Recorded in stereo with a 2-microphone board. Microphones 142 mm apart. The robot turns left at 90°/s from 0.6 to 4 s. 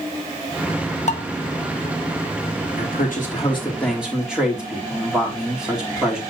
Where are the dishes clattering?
50° left (ahead or behind), 1.2 m; by 1.2 s 60° left (ahead or behind), 1.2 m.